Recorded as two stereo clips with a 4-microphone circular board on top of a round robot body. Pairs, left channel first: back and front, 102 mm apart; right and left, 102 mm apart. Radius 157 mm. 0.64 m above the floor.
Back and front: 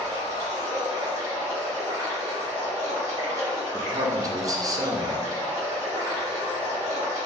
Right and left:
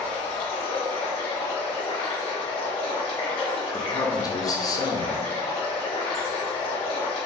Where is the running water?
60° right, 1.7 m.